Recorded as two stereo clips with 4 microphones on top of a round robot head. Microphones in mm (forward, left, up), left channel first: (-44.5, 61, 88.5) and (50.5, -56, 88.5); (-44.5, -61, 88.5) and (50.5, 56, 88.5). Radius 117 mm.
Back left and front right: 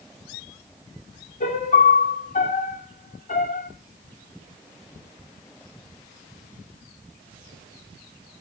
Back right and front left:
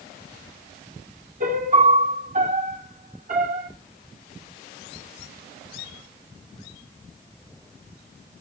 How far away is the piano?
About 2 m.